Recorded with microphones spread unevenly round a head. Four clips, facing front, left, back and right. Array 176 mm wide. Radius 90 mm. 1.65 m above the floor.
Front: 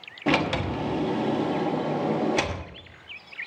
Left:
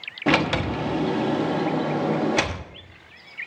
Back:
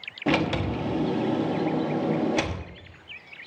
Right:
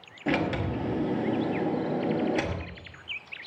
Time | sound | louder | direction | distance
0.3 | a sliding door | left 6 dB, even | 105° left | 1.1 m